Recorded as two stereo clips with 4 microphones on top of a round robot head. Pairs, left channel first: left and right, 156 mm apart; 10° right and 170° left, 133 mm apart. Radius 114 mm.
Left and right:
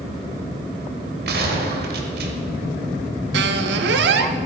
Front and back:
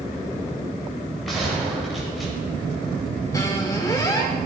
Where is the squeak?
85° right, 0.7 m.